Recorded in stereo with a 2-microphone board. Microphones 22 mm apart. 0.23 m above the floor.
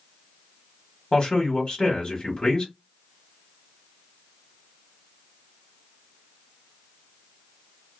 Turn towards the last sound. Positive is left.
turn(degrees=30)  # may be behind; listen again after turning